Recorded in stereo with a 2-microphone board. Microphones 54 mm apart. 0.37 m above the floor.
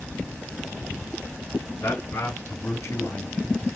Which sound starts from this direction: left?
A man speaking, at 1.8 s.